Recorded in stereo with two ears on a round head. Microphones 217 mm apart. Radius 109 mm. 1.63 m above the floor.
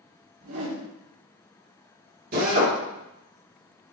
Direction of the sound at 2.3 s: 40° right (ahead or behind).